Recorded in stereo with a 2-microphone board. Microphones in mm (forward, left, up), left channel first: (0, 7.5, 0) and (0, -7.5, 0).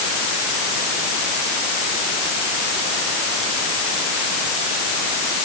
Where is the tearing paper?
No tearing paper in this recording.